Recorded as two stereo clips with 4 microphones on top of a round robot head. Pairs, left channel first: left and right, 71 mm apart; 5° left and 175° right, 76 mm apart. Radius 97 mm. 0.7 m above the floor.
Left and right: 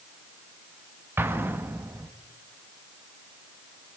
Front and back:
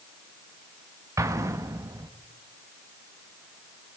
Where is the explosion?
140° right, 1.0 m.